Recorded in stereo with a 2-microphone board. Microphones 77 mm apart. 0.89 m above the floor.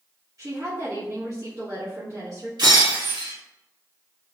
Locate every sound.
0.4 s a woman speaking: 50° right (ahead or behind), 1.1 m
2.6 s breaking glass: 70° right (ahead or behind), 1.9 m